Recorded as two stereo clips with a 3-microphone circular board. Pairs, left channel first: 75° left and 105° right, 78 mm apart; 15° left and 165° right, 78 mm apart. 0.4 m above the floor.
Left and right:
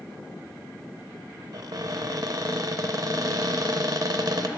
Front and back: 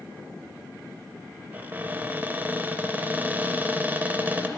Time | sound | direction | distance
1.5 | a cupboard door | 105° right | 0.8 m